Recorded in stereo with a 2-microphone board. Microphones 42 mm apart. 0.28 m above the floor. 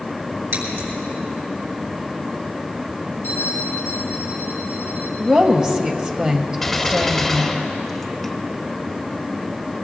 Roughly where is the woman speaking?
Right.